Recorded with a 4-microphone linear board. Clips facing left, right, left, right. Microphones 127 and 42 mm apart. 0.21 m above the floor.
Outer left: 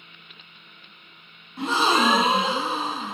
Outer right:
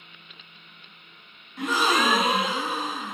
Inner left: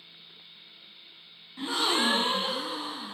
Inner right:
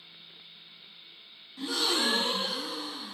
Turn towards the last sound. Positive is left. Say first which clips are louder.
# outer left 2 dB, inner left 2 dB
turn(degrees=30)  # may be behind; listen again after turning